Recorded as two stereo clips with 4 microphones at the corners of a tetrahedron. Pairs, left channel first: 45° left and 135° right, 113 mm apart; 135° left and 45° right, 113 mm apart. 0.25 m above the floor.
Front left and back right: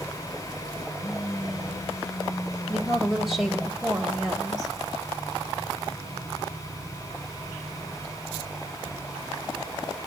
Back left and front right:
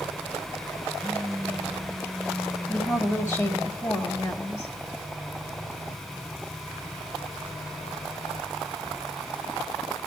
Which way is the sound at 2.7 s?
140° left.